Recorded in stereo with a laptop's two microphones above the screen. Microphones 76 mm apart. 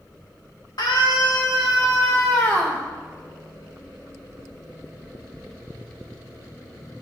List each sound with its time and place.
0.8 s a scream: 65° left (ahead or behind), 1.7 m; by 2.8 s 20° left (ahead or behind), 1.3 m